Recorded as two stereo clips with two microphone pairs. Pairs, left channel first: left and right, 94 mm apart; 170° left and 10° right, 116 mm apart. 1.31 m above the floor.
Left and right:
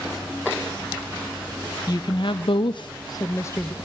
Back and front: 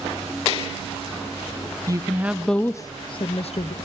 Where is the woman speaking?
50° left, 0.6 m; by 3.8 s 155° left, 0.8 m.